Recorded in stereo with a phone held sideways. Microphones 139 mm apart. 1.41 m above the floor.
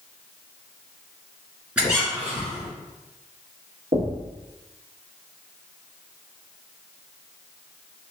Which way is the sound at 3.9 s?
55° right (ahead or behind).